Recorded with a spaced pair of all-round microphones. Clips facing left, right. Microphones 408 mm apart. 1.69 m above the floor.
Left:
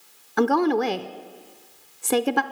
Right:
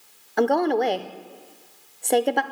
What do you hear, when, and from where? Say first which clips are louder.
0.4 s a woman speaking: even; 20° left (ahead or behind), 0.6 m